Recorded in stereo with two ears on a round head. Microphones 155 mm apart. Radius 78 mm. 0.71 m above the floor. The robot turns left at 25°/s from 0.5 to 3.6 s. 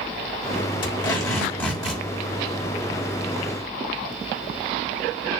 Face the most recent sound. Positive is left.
turn(degrees=-40)